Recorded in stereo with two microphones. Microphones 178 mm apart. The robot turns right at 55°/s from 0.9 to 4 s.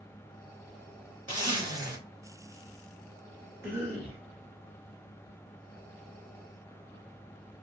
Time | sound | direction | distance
1.3 | a zipper | 25° right (ahead or behind) | 1.8 m
3.6 | a cough | 15° right (ahead or behind) | 1.5 m